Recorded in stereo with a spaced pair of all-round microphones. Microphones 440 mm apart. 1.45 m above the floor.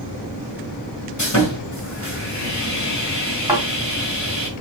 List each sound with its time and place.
1.2 s sawing: 40° left (ahead or behind), 1.5 m
3.5 s a thud: 5° right (ahead or behind), 3 m